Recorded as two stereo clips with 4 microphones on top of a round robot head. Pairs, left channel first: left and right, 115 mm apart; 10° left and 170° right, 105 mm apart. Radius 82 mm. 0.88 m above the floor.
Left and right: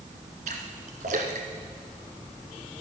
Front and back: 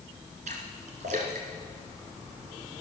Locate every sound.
0.5 s a splash: 130° right, 1.6 m